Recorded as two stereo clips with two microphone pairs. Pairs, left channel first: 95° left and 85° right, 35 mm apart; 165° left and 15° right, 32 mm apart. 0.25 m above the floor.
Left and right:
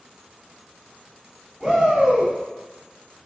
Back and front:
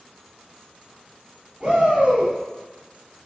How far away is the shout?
About 1.1 m.